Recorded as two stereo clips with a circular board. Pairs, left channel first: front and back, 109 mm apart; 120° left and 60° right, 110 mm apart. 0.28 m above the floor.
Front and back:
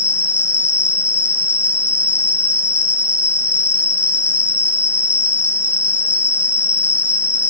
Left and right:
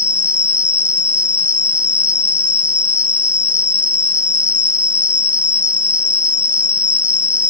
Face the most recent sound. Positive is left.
turn(degrees=-100)